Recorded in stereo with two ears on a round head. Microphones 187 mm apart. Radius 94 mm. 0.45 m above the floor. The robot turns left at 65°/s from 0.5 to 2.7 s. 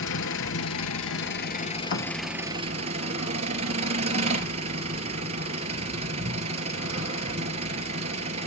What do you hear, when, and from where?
0.0 s an engine running: 110° left, 2 m; by 8.5 s 30° right, 2 m
1.9 s a thud: 60° left (ahead or behind), 1.0 m; by 2.1 s 75° left (ahead or behind), 1.0 m